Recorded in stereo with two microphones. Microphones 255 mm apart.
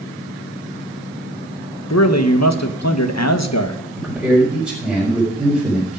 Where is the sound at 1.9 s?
80° left, 1.3 m.